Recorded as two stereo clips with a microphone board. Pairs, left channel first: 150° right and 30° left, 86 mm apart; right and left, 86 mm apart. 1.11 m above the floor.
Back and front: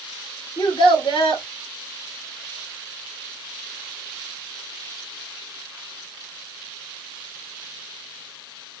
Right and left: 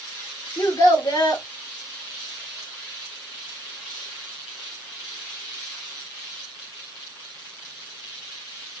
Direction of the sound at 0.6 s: 135° right.